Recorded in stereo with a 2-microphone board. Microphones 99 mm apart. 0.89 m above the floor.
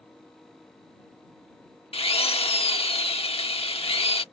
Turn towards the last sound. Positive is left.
turn(degrees=75)  # may be behind; listen again after turning